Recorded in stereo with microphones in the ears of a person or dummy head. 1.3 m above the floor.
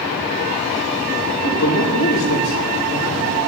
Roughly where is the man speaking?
Left.